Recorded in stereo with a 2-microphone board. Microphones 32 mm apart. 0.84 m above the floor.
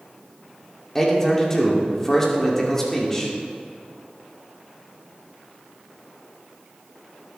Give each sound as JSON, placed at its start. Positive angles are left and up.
{"t": 0.9, "sound": "a man speaking", "side_deg": 15, "distance_m": 2.5}